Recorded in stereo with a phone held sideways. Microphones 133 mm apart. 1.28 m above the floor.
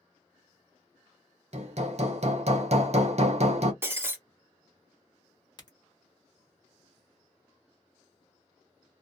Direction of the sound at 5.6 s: 30° left (ahead or behind).